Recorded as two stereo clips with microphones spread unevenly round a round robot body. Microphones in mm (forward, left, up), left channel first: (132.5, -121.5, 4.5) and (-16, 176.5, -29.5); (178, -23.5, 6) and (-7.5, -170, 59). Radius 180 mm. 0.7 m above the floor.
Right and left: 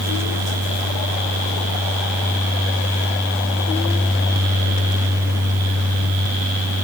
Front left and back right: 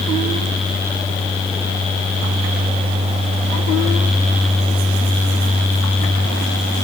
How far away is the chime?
No chime in this recording.